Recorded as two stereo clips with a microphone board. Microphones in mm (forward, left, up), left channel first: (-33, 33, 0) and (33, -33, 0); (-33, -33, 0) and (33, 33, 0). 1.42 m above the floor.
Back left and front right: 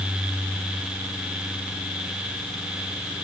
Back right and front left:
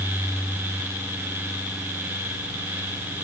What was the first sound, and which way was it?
Only background noise.